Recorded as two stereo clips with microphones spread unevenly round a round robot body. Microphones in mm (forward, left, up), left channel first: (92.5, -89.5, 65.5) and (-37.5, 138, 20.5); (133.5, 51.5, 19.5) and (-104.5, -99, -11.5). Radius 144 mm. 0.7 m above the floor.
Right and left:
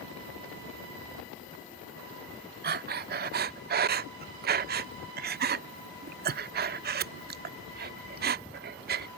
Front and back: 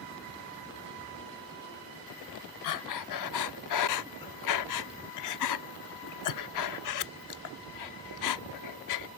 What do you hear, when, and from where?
2.6 s breathing: 65° left